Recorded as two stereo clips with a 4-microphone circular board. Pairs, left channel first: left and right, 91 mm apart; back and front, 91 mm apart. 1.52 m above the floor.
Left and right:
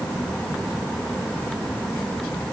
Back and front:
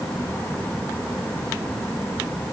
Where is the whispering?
I don't hear whispering.